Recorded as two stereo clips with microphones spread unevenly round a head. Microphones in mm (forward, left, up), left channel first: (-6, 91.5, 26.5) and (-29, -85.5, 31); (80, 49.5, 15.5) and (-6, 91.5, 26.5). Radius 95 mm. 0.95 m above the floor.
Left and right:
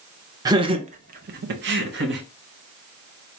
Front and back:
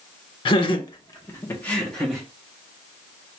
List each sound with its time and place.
0.5 s laughter: 30° right, 0.8 m; by 2.2 s 115° right, 1.0 m